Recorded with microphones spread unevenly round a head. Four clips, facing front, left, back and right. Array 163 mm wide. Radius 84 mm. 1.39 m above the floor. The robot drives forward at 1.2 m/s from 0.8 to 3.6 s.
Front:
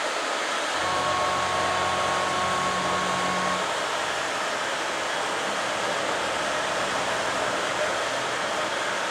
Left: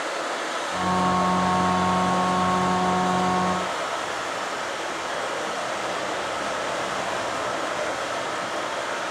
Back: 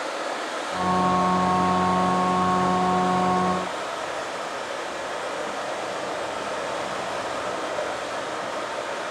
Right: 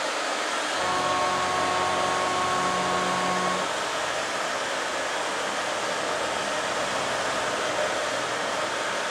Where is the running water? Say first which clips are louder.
Even, front 1 dB; 175° right, 2.5 m; by 9.1 s straight behind, 6 m.